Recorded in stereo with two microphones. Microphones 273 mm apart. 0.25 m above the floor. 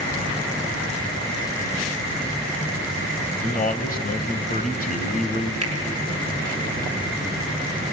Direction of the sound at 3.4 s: 30° left (ahead or behind).